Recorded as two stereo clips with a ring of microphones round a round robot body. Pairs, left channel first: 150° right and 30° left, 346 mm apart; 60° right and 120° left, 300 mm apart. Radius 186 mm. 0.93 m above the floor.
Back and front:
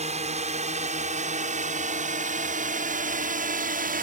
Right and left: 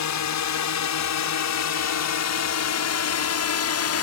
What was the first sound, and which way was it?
A drone, 40° right.